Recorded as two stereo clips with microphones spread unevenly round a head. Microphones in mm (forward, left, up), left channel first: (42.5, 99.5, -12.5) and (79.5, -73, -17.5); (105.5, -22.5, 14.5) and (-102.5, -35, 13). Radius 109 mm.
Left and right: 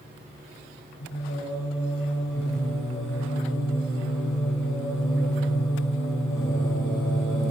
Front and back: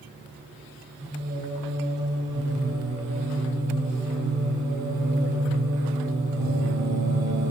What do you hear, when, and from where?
1.0 s singing: 140° left, 8 m